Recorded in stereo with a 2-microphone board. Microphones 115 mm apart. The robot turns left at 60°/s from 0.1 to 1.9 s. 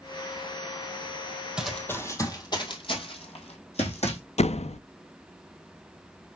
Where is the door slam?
70° left (ahead or behind), 0.5 m.